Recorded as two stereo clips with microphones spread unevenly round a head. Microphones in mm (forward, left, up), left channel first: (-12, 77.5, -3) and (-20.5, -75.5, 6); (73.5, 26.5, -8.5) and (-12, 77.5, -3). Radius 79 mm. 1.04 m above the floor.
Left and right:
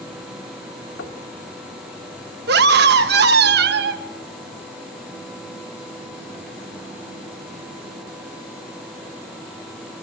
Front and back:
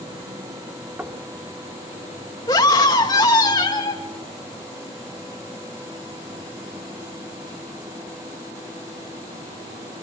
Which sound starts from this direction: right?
A scream, at 2.5 s.